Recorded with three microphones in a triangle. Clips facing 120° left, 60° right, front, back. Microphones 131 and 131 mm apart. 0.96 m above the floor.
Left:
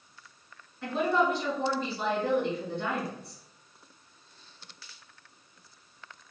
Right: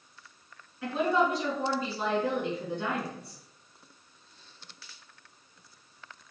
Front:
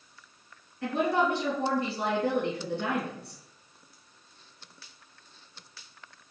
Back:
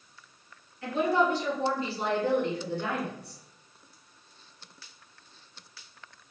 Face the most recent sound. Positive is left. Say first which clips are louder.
# even, back 1 dB
turn(degrees=30)